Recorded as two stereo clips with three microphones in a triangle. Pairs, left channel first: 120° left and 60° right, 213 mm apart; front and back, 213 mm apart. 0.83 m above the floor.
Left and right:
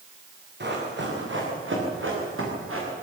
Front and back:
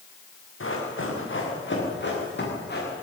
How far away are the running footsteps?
About 7.5 m.